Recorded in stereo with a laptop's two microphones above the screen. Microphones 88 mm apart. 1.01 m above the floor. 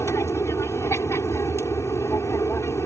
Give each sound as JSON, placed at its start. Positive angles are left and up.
{"t": 0.0, "sound": "an aircraft", "side_deg": 30}